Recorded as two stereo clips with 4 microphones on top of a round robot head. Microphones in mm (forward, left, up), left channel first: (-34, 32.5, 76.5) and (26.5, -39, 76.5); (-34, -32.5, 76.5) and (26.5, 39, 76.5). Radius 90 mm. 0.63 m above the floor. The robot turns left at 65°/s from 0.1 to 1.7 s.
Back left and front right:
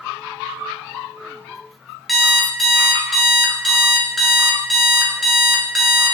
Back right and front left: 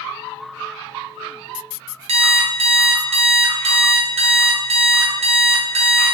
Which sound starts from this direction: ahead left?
An alarm clock, at 2.1 s.